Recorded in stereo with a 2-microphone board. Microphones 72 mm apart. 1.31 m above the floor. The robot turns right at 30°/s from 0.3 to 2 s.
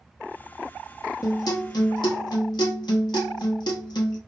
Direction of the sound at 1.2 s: 60° left (ahead or behind).